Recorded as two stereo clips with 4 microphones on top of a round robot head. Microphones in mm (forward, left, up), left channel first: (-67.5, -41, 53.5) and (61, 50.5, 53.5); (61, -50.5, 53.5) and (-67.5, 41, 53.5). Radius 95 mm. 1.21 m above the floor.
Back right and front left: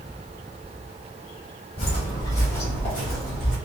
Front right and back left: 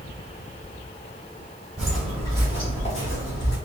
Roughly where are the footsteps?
Behind right.